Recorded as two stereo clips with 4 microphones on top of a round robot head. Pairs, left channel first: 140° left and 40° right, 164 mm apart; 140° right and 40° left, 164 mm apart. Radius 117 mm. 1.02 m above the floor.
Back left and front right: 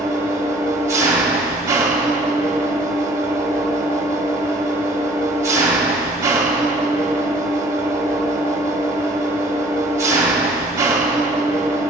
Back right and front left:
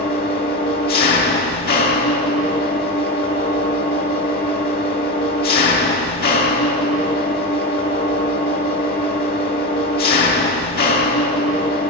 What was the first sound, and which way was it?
An engine running, 110° right.